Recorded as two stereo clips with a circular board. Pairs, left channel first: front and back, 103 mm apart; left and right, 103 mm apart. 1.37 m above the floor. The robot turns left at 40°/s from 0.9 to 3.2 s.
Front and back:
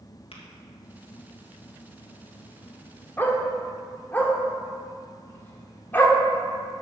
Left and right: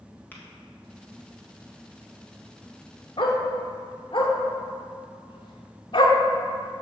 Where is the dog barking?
70° left, 1.6 m.